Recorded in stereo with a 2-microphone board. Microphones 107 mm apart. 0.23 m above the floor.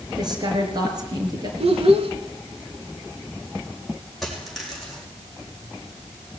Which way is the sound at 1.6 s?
65° right (ahead or behind).